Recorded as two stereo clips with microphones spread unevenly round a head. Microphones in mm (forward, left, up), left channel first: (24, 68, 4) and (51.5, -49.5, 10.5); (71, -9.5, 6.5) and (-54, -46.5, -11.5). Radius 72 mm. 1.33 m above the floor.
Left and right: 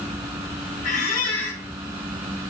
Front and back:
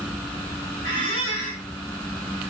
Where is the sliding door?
I don't hear a sliding door.